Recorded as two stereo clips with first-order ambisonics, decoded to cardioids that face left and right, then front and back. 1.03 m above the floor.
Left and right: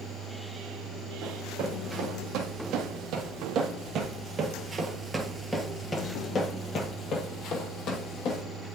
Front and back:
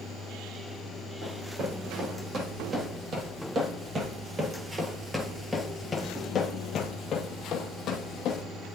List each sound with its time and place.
1.2 s running footsteps: 125° right, 2.5 m; by 8.4 s 55° left, 2 m